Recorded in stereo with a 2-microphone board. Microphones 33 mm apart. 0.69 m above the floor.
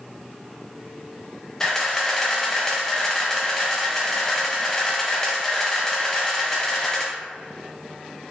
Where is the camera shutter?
15° left (ahead or behind), 0.5 m.